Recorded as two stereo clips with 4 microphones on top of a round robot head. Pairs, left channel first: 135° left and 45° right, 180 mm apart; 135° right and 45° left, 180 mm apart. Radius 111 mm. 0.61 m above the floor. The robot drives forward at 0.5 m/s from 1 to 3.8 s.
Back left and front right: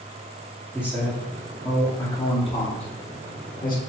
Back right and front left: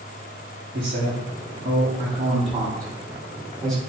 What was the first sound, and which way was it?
A man speaking, 40° left.